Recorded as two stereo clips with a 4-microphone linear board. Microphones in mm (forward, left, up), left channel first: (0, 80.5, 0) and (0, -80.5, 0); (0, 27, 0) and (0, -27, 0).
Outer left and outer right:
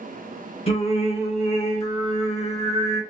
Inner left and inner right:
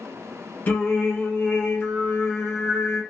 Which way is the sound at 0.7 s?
40° left (ahead or behind).